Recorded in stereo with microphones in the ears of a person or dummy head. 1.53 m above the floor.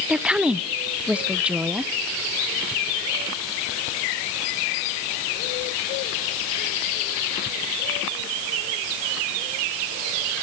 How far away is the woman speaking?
About 0.6 m.